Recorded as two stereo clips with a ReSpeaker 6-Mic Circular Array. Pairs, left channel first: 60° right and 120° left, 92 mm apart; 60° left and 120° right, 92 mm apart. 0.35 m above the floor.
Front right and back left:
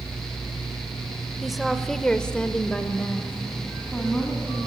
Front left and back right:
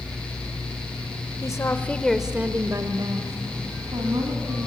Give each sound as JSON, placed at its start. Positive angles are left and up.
{"t": 1.4, "sound": "a woman speaking", "azimuth_deg": 30, "distance_m": 1.4}